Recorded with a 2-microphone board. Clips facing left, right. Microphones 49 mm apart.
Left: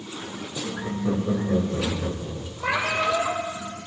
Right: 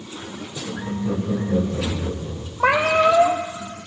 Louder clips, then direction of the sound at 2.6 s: Right 8 dB; 60° right (ahead or behind).